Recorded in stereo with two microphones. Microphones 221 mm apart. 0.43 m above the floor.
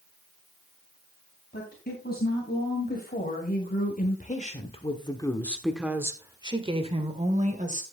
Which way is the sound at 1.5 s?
45° left (ahead or behind).